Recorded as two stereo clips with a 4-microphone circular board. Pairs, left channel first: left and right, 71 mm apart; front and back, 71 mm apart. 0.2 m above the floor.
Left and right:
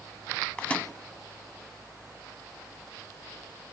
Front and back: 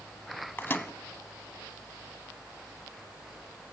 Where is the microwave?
30° left, 1.0 m.